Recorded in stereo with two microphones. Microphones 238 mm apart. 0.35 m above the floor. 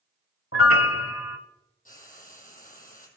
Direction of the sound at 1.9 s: 35° left (ahead or behind).